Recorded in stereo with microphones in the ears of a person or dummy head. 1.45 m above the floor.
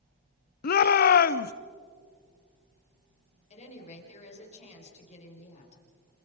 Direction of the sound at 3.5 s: 40° left (ahead or behind).